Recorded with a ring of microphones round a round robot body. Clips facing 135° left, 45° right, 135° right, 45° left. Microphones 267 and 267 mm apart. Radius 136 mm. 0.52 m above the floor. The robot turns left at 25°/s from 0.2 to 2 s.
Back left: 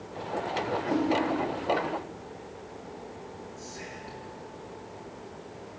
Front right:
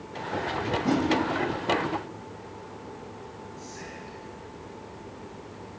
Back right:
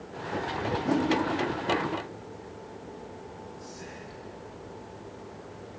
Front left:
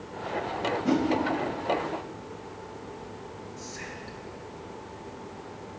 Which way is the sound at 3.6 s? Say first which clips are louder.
Front right 1 dB, front left 2 dB; 55° left.